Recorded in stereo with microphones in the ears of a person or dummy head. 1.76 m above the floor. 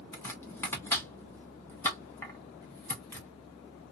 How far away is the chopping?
About 0.8 m.